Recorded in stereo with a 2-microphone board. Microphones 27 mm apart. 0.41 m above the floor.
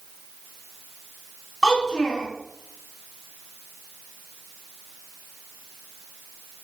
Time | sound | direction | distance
1.6 | a child speaking | 15° left (ahead or behind) | 1.7 m